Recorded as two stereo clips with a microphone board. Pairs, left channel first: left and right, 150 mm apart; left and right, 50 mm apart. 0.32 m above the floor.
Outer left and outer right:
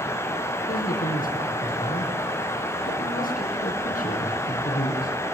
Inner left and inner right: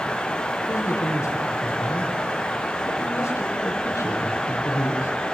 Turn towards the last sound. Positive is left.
turn(degrees=70)  # may be behind; listen again after turning